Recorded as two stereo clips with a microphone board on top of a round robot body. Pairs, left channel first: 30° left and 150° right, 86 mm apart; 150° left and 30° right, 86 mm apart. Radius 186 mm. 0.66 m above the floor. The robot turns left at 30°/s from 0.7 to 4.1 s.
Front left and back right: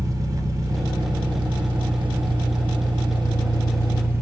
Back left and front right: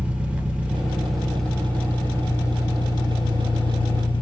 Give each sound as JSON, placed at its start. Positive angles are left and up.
{"t": 0.0, "sound": "an engine running", "azimuth_deg": -105, "distance_m": 1.4}